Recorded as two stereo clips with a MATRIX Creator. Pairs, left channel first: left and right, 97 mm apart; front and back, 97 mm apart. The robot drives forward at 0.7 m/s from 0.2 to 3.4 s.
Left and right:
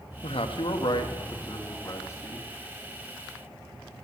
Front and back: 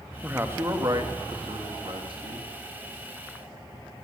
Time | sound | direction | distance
0.2 | a man speaking | 105° left | 1.0 m